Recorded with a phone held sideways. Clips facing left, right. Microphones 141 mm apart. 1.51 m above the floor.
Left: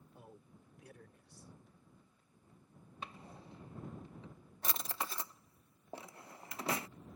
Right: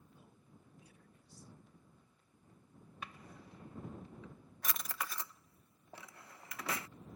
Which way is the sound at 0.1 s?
70° left (ahead or behind).